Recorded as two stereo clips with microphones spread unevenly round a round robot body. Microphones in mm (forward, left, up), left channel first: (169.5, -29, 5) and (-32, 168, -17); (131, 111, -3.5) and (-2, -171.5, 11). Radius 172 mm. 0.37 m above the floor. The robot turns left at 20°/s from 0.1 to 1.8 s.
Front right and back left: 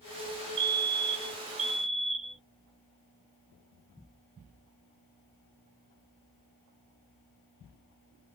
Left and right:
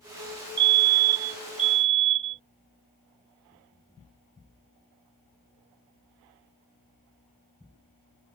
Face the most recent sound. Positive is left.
turn(degrees=150)